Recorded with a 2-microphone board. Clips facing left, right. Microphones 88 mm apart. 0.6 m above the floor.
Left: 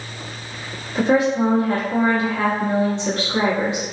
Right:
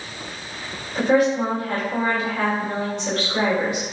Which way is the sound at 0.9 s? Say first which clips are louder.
Left 1 dB; 25° left (ahead or behind).